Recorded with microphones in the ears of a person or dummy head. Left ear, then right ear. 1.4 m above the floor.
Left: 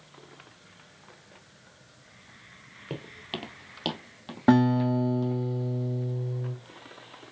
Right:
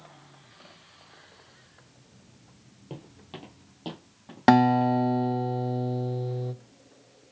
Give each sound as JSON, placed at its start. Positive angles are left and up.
{"t": 2.9, "sound": "footsteps", "side_deg": 30, "distance_m": 1.9}
{"t": 4.5, "sound": "a guitar", "side_deg": -40, "distance_m": 0.9}